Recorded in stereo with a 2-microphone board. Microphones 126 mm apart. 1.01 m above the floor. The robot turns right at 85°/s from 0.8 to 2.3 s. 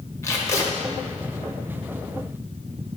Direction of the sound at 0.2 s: 20° left (ahead or behind).